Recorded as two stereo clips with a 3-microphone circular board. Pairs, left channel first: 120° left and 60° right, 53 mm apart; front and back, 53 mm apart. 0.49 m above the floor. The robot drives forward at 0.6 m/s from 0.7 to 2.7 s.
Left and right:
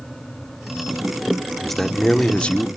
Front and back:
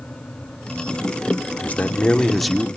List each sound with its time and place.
1.6 s a man speaking: 35° left, 0.9 m; by 2.7 s 110° left, 0.8 m